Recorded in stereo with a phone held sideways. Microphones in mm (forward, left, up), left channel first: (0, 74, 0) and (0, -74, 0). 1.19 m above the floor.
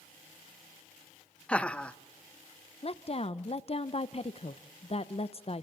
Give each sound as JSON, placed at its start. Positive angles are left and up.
{"t": 1.5, "sound": "laughter", "side_deg": 10, "distance_m": 0.7}
{"t": 2.8, "sound": "a woman speaking", "side_deg": 45, "distance_m": 0.5}